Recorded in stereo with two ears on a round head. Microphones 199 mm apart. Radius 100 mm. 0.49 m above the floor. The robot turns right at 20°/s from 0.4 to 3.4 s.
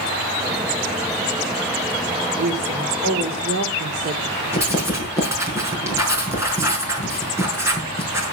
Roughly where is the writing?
Centre.